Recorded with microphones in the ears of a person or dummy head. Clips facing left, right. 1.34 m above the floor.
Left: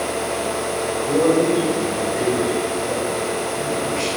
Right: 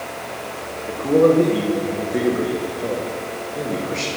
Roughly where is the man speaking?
Right.